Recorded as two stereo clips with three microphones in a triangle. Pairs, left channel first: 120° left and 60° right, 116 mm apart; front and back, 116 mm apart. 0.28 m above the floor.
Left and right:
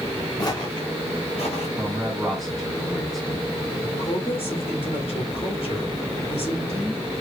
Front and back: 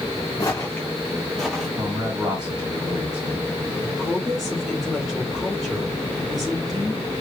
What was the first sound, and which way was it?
Footsteps, 60° left.